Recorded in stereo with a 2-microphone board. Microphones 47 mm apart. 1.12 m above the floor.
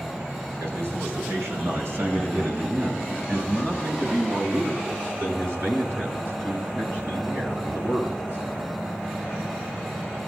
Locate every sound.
0.6 s a man speaking: 80° right, 4.5 m; by 8.4 s 55° right (ahead or behind), 13 m